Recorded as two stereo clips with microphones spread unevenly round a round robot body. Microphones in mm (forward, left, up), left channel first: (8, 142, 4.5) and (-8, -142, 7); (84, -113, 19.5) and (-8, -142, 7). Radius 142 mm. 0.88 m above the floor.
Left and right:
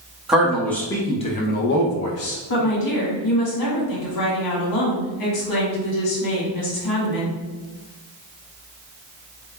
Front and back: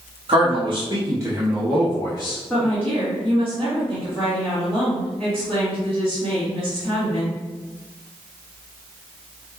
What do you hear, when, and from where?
0.3 s a man speaking: straight behind, 1.4 m; by 2.4 s 55° left, 0.9 m
2.5 s a woman speaking: 105° left, 1.7 m